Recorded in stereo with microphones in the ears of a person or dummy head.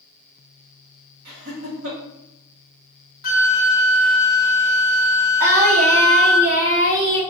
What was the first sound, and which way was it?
Laughter, 85° right.